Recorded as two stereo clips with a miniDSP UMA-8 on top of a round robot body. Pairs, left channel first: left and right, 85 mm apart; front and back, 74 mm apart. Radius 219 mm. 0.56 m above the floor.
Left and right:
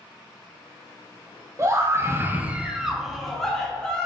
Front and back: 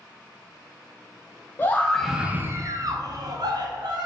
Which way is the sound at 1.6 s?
50° right.